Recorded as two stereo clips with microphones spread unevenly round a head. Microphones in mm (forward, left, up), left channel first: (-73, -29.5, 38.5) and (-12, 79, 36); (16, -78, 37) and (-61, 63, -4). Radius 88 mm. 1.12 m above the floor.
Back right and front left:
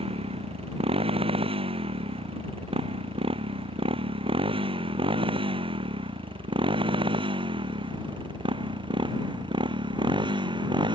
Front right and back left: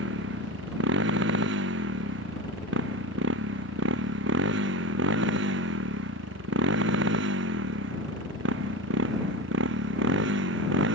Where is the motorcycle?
105° left; by 10.9 s 115° left.